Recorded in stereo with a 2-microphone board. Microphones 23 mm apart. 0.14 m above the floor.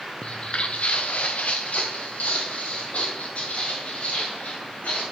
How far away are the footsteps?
About 0.6 m.